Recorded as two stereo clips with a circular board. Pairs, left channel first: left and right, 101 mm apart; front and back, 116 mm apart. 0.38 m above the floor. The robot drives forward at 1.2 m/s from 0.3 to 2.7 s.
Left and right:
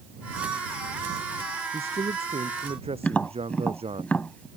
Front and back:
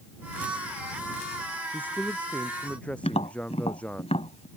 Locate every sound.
1.7 s a man speaking: 75° right; by 4.0 s 80° right
3.0 s tapping: 15° left